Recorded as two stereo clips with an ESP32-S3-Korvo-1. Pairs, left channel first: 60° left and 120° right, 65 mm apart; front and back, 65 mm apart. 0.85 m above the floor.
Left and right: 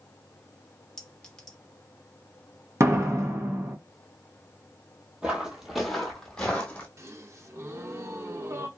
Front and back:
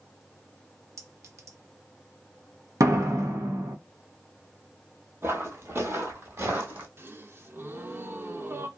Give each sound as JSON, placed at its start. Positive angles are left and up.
{"t": 1.0, "sound": "a clink", "azimuth_deg": 140, "distance_m": 0.8}
{"t": 2.8, "sound": "a door slam", "azimuth_deg": -155, "distance_m": 0.7}
{"t": 5.2, "sound": "footsteps", "azimuth_deg": 180, "distance_m": 1.0}
{"t": 7.0, "sound": "a gasp", "azimuth_deg": -140, "distance_m": 0.5}